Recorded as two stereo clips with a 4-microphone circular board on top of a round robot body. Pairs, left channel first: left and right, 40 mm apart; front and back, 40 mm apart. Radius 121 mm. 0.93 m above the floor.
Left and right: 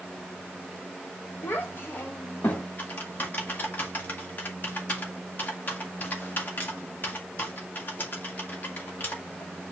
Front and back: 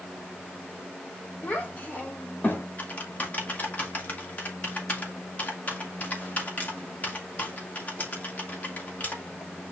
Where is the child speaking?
55° left, 2 m; by 2.7 s 40° left, 2.5 m.